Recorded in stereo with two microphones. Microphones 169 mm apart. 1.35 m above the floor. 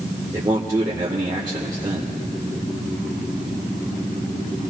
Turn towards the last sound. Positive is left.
turn(degrees=-25)  # may be behind; listen again after turning